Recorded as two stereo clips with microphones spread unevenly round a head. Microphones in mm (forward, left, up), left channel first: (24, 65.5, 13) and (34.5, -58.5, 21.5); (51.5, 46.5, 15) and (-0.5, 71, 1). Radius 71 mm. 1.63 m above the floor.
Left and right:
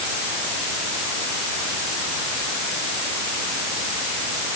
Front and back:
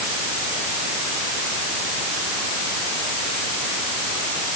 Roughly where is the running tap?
I don't hear a running tap.